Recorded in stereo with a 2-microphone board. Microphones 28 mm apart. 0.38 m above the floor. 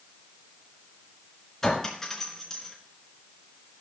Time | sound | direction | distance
1.6 | a clink | 15° left (ahead or behind) | 3.5 m